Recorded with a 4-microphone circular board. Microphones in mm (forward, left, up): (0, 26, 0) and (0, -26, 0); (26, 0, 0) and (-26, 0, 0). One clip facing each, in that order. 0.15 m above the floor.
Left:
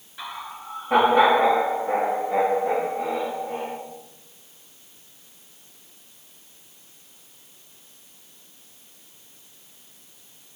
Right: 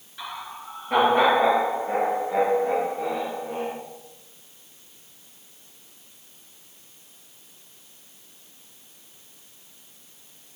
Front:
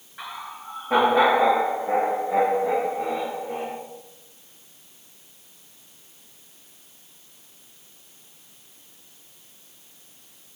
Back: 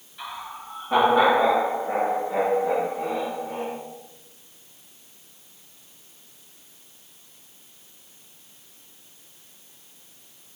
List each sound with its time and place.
0.2 s laughter: 10° left, 1.9 m; by 3.7 s 5° left, 5 m